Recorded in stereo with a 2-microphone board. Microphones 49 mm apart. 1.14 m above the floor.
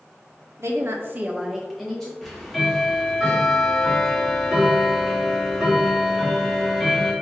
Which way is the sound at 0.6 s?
70° right (ahead or behind).